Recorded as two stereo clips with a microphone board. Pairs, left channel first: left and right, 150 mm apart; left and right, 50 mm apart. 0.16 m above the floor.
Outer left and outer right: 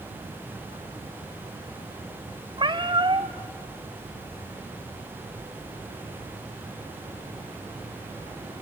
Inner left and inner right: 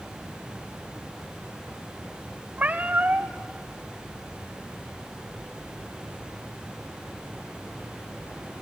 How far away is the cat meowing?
About 1.3 m.